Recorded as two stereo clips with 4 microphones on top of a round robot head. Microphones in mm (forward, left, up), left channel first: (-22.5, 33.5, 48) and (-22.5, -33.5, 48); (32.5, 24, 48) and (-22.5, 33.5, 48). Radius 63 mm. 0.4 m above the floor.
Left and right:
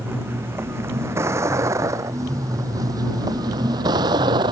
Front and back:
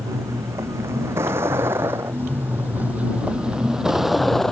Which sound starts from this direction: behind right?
A vehicle, at 0.0 s.